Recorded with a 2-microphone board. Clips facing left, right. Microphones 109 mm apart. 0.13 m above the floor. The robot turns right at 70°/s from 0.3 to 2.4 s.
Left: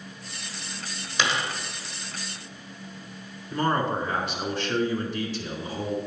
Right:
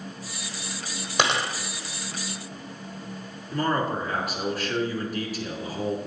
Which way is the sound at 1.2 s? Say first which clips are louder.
Right 3 dB; 55° right (ahead or behind).